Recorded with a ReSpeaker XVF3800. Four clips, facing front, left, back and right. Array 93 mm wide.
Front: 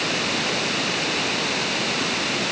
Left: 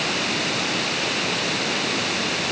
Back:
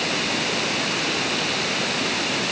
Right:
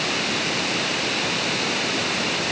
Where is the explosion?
I don't hear an explosion.